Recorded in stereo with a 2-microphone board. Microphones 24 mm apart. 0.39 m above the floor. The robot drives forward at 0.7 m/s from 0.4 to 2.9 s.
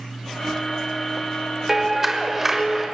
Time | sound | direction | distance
1.7 | a clap | 15° right (ahead or behind) | 1.1 m